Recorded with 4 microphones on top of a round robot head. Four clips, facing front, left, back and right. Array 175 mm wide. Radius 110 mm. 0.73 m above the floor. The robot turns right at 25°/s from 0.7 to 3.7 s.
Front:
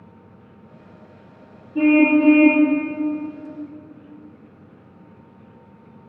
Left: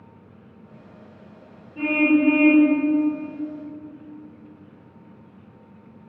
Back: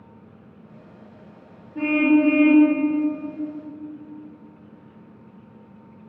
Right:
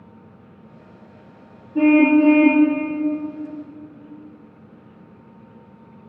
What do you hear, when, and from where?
1.8 s a car horn: 65° right, 5.5 m; by 2.7 s 40° right, 5.5 m